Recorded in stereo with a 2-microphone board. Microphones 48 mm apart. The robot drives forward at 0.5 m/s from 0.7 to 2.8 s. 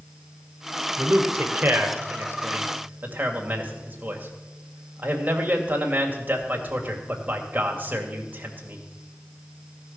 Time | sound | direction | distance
1.0 | a man speaking | 45° right (ahead or behind) | 1.9 m